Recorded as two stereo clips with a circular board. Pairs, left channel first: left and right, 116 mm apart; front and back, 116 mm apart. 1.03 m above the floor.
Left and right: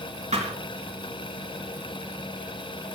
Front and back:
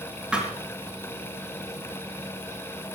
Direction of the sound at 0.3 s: 100° right.